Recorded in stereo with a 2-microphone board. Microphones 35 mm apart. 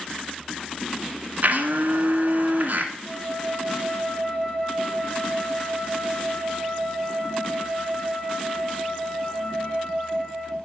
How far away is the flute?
About 1.6 m.